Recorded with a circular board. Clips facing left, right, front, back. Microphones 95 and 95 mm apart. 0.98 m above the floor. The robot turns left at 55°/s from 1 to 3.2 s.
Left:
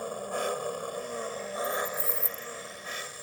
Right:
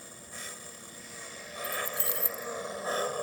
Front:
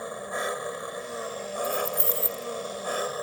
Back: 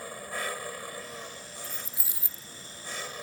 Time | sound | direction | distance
0.0 | an engine running | 65° left | ?
1.6 | keys jangling | 75° right | ?